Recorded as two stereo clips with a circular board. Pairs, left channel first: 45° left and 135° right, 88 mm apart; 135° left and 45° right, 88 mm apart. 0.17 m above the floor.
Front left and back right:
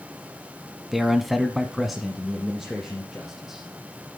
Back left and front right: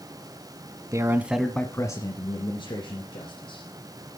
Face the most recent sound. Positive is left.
turn(degrees=135)